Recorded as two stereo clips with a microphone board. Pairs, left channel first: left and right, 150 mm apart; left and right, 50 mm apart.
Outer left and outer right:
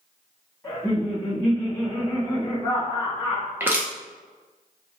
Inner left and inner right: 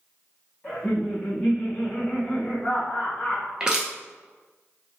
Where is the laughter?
15° left (ahead or behind), 1.4 m.